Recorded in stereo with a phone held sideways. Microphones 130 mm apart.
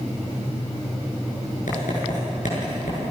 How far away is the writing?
About 9.5 m.